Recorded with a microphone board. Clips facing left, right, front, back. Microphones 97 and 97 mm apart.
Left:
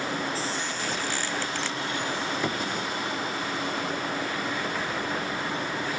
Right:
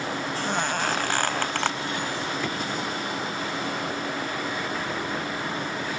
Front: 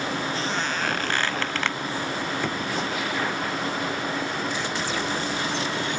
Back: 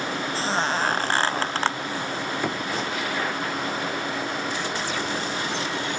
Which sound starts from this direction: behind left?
Knocking, at 2.4 s.